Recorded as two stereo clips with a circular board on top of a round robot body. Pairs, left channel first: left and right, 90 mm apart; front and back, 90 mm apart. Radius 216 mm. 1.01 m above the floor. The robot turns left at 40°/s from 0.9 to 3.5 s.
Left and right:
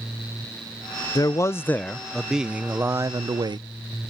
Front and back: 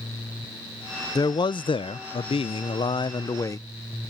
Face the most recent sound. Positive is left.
turn(degrees=-50)